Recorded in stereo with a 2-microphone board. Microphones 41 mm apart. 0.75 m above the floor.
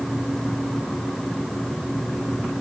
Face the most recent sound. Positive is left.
No sound to turn to.